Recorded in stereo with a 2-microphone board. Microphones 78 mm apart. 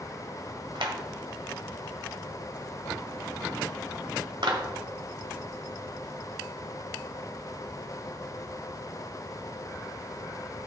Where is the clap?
75° right (ahead or behind), 1.6 m.